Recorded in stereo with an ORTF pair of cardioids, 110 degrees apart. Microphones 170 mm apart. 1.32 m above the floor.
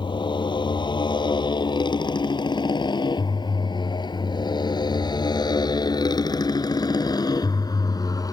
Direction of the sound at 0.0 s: 30° left.